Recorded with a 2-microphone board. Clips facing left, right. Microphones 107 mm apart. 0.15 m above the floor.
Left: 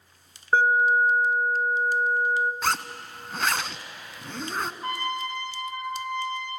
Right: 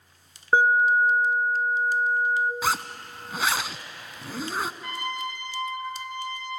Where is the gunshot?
No gunshot in this recording.